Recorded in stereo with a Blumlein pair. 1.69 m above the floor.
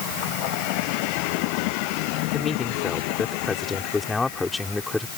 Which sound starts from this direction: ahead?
A man speaking, at 2.3 s.